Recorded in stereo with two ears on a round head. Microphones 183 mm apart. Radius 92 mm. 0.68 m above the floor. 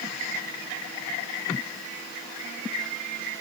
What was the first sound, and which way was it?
Only background noise.